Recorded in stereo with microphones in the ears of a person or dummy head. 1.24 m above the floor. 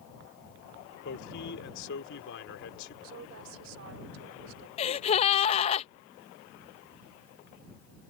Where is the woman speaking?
75° right (ahead or behind).